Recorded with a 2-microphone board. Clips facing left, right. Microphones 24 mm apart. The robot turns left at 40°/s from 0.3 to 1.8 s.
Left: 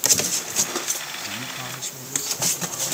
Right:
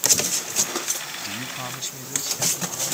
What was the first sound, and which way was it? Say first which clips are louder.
A man speaking: even; 25° right (ahead or behind).